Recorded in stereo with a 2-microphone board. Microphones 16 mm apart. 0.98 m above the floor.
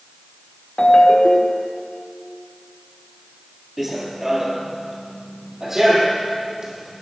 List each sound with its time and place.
0.8 s a ringtone: 45° left (ahead or behind), 1.5 m
3.8 s running footsteps: 20° right (ahead or behind), 1.2 m; by 6.9 s 45° right (ahead or behind), 2.5 m